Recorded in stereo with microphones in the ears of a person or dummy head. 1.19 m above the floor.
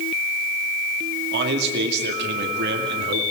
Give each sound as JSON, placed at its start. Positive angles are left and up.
{"t": 1.3, "sound": "a man speaking", "side_deg": -60, "distance_m": 2.0}